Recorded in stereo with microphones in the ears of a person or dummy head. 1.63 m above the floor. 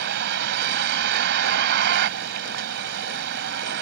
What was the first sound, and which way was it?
A vehicle, 65° right (ahead or behind).